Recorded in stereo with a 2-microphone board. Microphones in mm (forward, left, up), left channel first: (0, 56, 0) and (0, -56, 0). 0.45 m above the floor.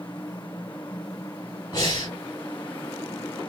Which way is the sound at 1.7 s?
35° left (ahead or behind).